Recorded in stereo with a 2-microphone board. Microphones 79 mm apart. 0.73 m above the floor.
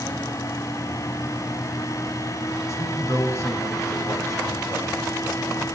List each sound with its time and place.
2.7 s a man speaking: 40° left (ahead or behind), 3.5 m